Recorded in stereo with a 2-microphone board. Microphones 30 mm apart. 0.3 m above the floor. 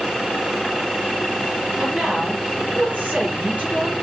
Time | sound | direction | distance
1.8 | a woman speaking | 45° right (ahead or behind) | 6 m